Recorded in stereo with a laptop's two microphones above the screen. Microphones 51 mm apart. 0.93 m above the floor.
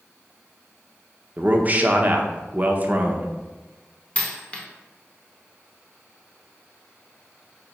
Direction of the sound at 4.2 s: 25° left (ahead or behind).